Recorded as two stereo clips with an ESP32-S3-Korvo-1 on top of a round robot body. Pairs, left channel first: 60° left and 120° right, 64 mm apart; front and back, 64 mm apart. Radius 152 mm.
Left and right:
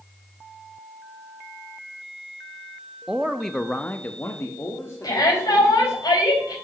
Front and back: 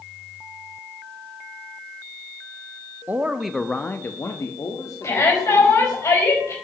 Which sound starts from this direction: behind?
A man speaking, at 3.1 s.